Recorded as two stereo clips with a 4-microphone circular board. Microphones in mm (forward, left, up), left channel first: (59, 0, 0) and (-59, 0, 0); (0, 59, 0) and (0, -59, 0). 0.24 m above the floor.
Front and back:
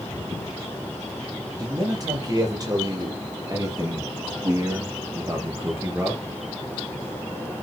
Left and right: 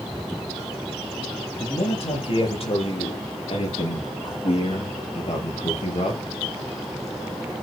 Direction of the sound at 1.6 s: 125° left.